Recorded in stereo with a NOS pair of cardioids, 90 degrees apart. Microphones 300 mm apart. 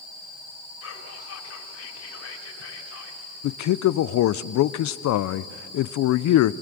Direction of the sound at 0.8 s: 55° left.